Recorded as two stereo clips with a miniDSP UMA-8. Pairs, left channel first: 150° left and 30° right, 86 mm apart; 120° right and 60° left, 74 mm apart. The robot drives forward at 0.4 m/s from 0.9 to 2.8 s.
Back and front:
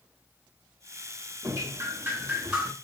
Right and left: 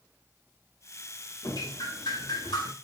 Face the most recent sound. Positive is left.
turn(degrees=-115)